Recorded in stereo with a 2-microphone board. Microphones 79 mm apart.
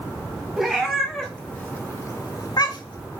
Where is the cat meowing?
5° right (ahead or behind), 1.3 m; by 3.1 s 70° left (ahead or behind), 0.9 m.